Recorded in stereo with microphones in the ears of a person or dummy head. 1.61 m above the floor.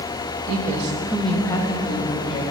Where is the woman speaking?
55° right (ahead or behind), 0.7 m; by 2.4 s 35° left (ahead or behind), 1.7 m.